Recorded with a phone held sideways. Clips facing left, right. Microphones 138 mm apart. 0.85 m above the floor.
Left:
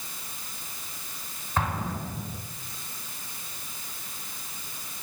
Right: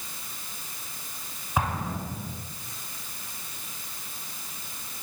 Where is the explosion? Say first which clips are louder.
Right 1 dB; 10° right (ahead or behind), 7.5 m.